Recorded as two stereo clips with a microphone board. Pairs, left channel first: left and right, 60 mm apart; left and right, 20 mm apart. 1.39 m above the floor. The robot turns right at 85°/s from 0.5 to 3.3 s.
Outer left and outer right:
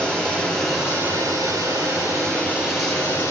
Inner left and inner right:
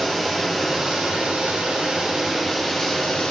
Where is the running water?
165° left, 5 m; by 3.3 s 45° left, 5 m.